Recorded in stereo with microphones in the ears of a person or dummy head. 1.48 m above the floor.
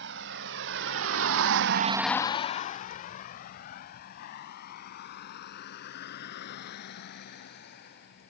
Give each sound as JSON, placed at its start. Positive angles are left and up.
{"t": 0.0, "sound": "a vehicle", "side_deg": -65}